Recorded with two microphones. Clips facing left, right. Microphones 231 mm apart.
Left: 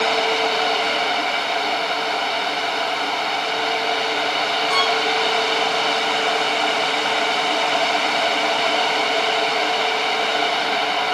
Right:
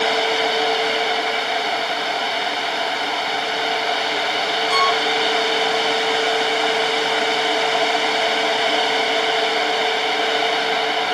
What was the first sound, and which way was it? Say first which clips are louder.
A violin: right 2 dB; 60° left (ahead or behind).